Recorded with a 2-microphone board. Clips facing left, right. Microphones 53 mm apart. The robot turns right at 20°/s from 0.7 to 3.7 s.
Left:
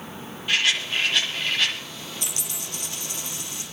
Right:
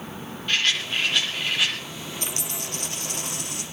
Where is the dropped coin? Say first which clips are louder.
Right 3 dB; 40° right (ahead or behind), 3 m; by 3.6 s 65° right (ahead or behind), 3 m.